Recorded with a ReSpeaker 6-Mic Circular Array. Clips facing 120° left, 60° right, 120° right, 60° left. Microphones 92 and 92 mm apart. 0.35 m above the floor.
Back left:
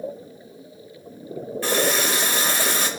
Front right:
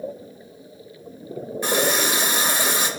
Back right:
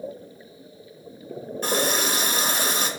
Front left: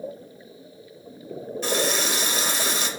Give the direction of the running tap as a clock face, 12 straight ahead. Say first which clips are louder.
Even, back right 1 dB; 4 o'clock.